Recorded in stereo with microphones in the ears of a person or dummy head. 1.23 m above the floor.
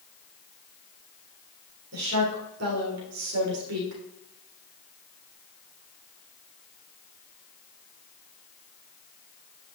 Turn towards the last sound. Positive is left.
turn(degrees=-80)